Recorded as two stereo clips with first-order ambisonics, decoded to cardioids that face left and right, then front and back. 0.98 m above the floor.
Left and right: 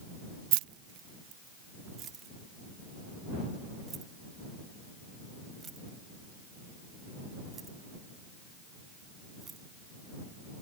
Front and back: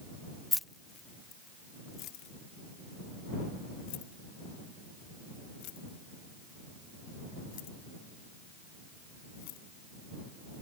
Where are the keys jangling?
85° right; by 9.6 s 20° right.